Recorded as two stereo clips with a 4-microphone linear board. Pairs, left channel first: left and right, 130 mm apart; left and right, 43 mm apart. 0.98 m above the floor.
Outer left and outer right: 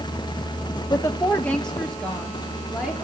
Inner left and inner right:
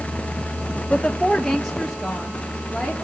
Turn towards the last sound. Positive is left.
turn(degrees=-5)  # may be behind; listen again after turning